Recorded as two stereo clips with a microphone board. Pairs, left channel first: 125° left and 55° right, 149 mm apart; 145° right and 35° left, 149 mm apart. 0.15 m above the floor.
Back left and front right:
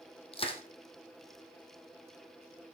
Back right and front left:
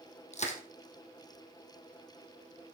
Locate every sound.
0.3 s crushing: 175° left, 2.5 m